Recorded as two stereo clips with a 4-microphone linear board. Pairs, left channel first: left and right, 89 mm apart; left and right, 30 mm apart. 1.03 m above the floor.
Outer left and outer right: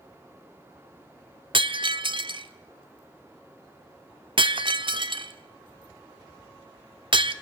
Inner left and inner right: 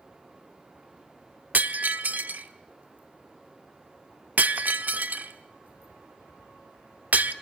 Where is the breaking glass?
70° right (ahead or behind), 1.2 m.